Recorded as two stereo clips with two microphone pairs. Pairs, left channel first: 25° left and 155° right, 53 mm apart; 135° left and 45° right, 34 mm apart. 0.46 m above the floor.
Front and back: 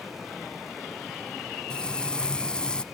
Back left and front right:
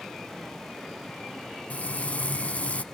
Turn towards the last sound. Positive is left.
turn(degrees=95)